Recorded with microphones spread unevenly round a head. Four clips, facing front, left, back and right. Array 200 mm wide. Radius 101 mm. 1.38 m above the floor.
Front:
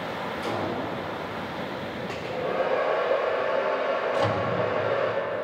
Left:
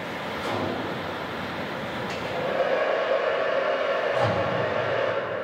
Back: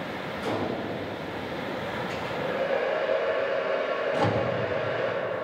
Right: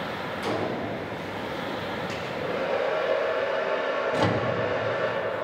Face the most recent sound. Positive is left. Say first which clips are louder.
# left 1 dB, back 2 dB
turn(degrees=-95)